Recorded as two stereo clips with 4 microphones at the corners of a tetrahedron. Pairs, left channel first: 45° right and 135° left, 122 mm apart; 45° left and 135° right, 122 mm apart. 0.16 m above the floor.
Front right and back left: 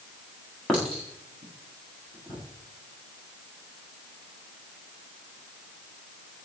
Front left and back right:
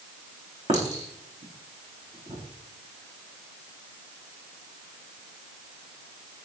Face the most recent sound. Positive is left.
turn(degrees=-125)